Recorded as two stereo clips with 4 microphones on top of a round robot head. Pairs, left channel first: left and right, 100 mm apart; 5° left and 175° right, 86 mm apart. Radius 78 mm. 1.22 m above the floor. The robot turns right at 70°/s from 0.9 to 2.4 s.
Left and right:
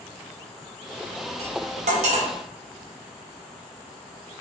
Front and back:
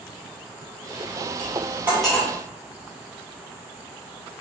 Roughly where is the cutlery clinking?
Behind right.